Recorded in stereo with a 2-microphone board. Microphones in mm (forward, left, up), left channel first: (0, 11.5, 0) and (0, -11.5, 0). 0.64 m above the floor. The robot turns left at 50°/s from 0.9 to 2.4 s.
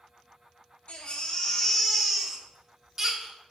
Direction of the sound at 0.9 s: 60° left.